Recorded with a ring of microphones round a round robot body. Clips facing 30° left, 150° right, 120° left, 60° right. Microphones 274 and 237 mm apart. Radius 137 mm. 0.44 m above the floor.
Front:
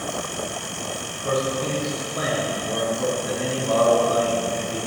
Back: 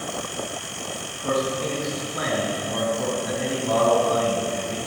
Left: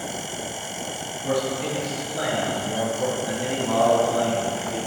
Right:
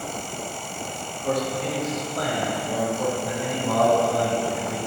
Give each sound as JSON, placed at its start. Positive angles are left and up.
{"t": 1.2, "sound": "a man speaking", "azimuth_deg": -165, "distance_m": 5.0}